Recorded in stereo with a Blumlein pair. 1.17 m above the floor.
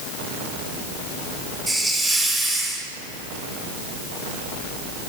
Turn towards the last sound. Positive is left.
turn(degrees=-5)